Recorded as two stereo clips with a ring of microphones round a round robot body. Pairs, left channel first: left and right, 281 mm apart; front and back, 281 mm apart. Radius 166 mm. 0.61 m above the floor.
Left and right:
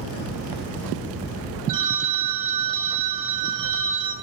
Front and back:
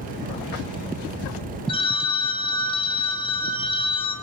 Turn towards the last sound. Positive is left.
turn(degrees=-75)